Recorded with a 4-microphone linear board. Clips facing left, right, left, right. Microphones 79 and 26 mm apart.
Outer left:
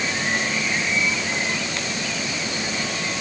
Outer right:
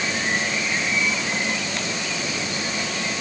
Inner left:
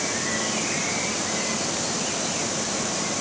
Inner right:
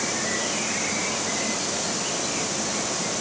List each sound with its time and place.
Only background noise.